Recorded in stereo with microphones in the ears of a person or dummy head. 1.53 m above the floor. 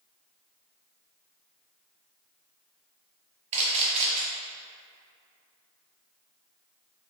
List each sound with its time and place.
3.5 s a camera shutter: 35° right (ahead or behind), 1.0 m